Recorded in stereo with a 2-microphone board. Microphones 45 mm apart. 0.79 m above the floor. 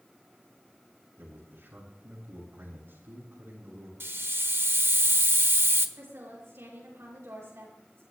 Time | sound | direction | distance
1.2 | a man speaking | 65° right (ahead or behind) | 8.5 m
4.0 | a hiss | 60° right (ahead or behind) | 0.9 m
6.0 | a woman speaking | 70° right (ahead or behind) | 10 m